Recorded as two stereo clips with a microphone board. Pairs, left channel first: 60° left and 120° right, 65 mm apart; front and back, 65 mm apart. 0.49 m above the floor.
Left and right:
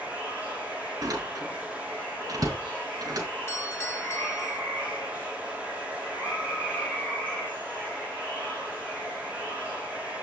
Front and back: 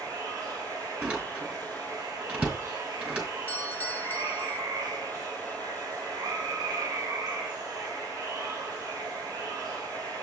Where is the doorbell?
50° left, 1.8 m.